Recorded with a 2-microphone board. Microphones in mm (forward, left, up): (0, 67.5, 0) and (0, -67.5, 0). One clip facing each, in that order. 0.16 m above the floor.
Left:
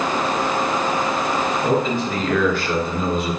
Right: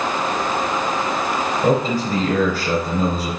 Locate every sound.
1.6 s a man speaking: 40° right (ahead or behind), 3 m